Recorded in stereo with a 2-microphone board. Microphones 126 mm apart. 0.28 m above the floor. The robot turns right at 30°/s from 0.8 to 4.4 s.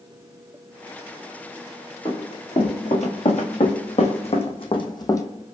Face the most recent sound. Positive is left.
turn(degrees=25)  # may be behind; listen again after turning